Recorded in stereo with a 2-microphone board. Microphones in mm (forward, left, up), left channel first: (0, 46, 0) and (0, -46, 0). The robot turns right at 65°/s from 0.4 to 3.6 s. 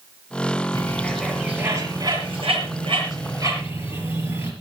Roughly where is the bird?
Left.